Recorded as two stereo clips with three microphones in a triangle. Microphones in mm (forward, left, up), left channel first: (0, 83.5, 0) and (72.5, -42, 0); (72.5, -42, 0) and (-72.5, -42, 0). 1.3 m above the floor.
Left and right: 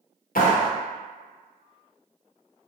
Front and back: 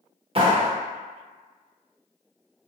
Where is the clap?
130° left, 0.7 m.